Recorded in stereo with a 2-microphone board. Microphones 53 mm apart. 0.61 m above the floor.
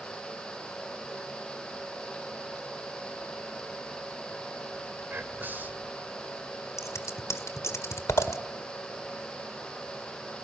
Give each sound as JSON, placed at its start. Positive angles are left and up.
{"t": 5.1, "sound": "whispering", "side_deg": -40, "distance_m": 2.5}
{"t": 6.8, "sound": "scissors", "side_deg": 70, "distance_m": 1.6}